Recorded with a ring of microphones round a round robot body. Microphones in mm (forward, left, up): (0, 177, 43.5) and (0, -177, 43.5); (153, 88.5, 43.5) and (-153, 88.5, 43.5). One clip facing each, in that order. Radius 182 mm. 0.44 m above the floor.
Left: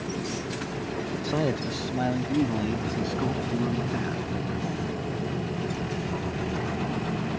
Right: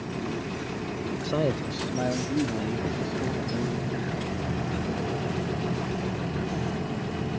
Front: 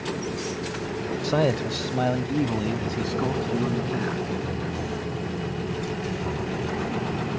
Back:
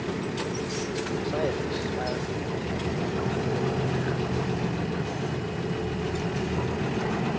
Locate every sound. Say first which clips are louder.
1.2 s a man speaking: even, front 7 dB; straight ahead; by 4.2 s 30° left